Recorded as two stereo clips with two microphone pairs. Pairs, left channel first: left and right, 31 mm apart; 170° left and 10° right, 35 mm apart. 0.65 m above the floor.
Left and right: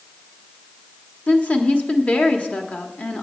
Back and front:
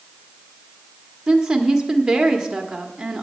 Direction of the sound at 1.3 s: 60° left.